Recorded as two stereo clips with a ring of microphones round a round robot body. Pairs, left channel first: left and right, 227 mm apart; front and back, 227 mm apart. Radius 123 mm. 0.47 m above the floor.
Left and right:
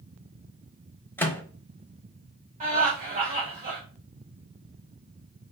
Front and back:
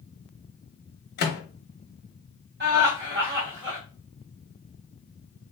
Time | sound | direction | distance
1.2 | a microwave | 15° left | 0.6 m
2.6 | laughter | 145° right | 1.4 m